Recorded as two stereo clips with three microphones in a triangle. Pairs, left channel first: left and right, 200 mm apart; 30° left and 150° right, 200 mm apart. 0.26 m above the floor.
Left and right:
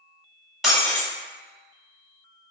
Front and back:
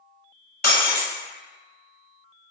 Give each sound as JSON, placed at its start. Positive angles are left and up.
{"t": 0.6, "sound": "breaking glass", "azimuth_deg": 0, "distance_m": 0.9}